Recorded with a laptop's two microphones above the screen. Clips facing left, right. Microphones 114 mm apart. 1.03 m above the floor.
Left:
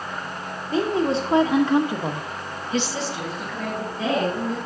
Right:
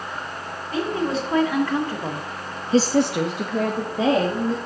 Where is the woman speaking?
30° left (ahead or behind), 2.5 m; by 4.6 s 60° right (ahead or behind), 2 m.